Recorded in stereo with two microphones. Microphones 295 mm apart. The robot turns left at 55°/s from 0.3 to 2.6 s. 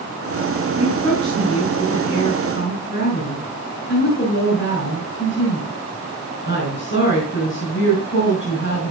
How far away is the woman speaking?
About 5 m.